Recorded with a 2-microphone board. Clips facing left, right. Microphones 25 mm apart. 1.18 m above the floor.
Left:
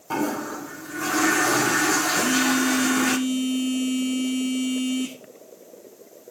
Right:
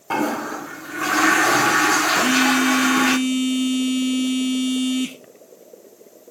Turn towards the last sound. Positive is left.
turn(degrees=-75)  # may be behind; listen again after turning